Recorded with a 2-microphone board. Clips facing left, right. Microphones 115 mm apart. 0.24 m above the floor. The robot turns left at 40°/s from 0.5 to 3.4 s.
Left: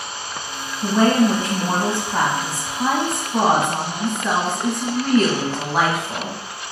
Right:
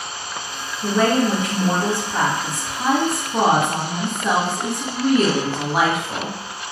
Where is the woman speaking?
85° left, 1.1 m; by 6.4 s 20° right, 1.1 m.